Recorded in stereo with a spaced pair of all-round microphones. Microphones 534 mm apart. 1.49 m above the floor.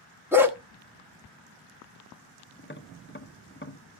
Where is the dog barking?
5° right (ahead or behind), 1.1 m.